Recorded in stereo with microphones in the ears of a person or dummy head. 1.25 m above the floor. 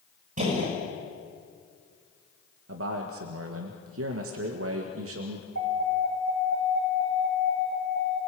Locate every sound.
0.4 s a gunshot: 50° right (ahead or behind), 5.5 m
2.7 s a man speaking: 65° right (ahead or behind), 1.6 m
5.5 s an alarm: 70° right (ahead or behind), 5.5 m